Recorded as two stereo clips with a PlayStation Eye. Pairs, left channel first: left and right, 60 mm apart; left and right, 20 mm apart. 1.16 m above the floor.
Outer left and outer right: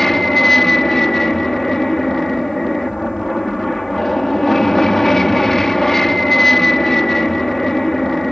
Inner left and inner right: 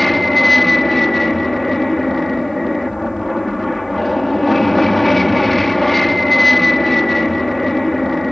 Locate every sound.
0.0 s an aircraft: 5° left (ahead or behind)